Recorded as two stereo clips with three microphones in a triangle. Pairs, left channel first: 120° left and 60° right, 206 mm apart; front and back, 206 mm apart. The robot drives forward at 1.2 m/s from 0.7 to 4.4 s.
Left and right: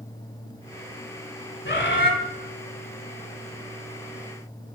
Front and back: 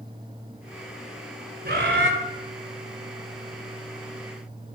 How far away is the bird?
About 1.6 m.